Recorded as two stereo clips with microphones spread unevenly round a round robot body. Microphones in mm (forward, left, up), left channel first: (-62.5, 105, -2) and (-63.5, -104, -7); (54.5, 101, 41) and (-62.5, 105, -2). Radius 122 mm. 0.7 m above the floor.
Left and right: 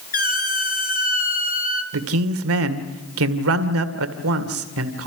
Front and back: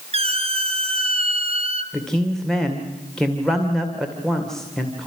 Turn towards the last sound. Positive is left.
turn(degrees=-95)